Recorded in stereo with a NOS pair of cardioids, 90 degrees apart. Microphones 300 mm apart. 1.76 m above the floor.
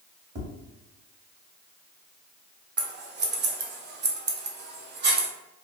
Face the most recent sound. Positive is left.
turn(degrees=-35)